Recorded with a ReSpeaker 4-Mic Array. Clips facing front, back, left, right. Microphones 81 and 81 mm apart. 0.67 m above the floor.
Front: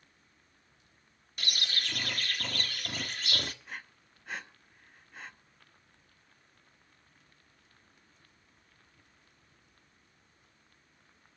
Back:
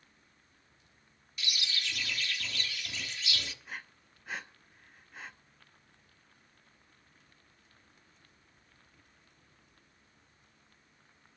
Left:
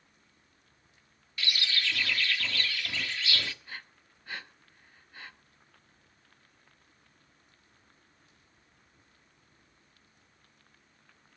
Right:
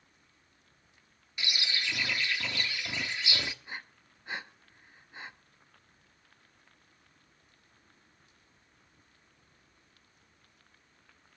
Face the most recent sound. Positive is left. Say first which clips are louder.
# even, right 2 dB
turn(degrees=-95)